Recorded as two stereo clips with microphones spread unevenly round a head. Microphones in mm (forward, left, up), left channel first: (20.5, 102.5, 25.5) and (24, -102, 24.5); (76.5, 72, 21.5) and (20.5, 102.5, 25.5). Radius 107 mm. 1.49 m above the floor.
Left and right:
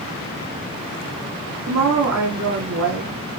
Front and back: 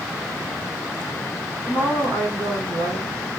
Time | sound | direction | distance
1.7 | a woman speaking | 110° right | 1.2 m